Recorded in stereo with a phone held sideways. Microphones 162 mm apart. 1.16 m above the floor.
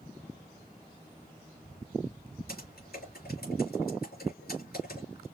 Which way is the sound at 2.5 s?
75° left (ahead or behind).